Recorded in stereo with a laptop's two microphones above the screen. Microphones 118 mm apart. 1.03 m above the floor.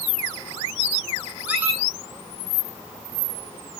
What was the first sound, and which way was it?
A squeak, 10° right (ahead or behind).